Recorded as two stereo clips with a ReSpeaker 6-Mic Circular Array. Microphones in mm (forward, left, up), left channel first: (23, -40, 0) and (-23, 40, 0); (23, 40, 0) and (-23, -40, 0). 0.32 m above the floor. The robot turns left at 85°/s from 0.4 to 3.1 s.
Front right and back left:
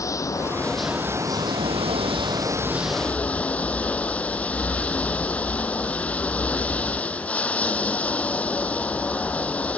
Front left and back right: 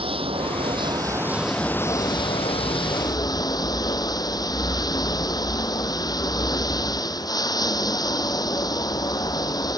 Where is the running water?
115° right; by 9.8 s 15° left.